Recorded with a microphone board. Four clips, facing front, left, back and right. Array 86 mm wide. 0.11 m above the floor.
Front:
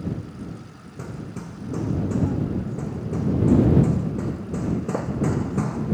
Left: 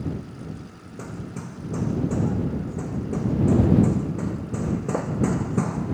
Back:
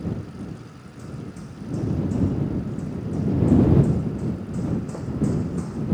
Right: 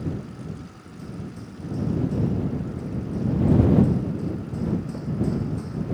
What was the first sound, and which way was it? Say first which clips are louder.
Hammering: left 2 dB, front 2 dB; 55° left.